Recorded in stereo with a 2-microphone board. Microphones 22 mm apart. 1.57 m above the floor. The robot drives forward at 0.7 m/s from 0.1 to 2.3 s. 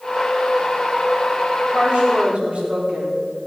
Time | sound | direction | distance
1.7 | a woman speaking | 60° right (ahead or behind) | 4 m